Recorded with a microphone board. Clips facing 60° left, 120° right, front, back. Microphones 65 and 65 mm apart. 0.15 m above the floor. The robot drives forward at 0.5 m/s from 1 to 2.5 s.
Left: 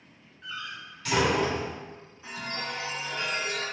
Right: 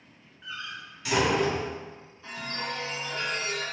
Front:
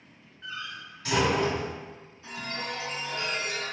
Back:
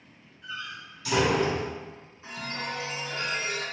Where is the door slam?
40° right, 1.7 m; by 1.7 s 50° right, 1.5 m.